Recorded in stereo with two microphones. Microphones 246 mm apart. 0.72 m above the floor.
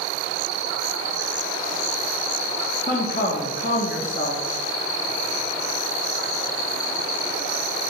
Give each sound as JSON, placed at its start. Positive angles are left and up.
{"t": 2.9, "sound": "a woman speaking", "side_deg": 40, "distance_m": 1.0}